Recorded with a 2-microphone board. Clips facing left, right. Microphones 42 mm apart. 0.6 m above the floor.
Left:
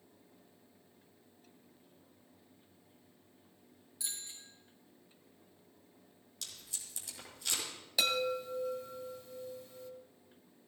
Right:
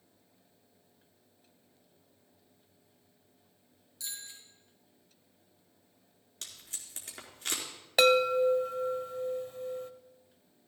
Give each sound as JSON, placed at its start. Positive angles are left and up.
{"t": 4.0, "sound": "a bicycle bell", "side_deg": 15, "distance_m": 5.5}
{"t": 6.4, "sound": "tape being pulled", "side_deg": -50, "distance_m": 4.5}
{"t": 8.0, "sound": "a chime", "side_deg": -50, "distance_m": 1.0}